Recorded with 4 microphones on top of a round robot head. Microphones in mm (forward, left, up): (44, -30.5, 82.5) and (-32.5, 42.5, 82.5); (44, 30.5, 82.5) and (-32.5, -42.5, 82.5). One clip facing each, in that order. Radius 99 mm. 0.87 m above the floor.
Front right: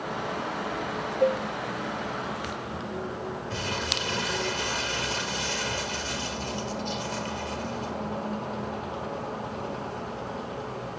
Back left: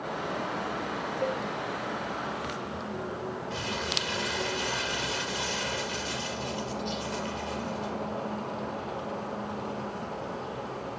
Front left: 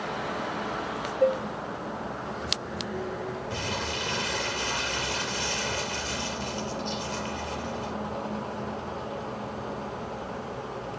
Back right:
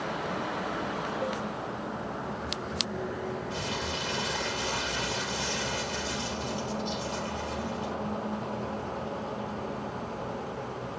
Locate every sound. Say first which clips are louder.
1.2 s dishes clattering: front right 8 dB, front left 13 dB; 15° left, 0.6 m
3.5 s crumpling: front right 1 dB, front left 1 dB; 5° left, 3.5 m